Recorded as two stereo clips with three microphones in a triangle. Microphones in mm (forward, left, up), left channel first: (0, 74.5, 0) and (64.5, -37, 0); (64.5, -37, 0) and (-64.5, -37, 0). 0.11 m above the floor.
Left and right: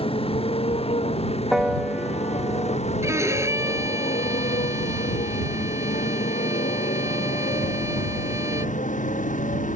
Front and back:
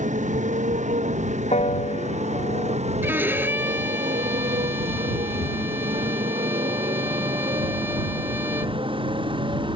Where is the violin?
115° right.